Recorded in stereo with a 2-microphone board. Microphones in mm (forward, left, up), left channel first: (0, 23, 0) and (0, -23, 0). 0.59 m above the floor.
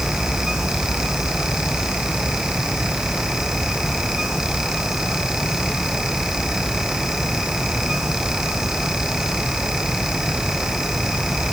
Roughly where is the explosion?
I don't hear an explosion.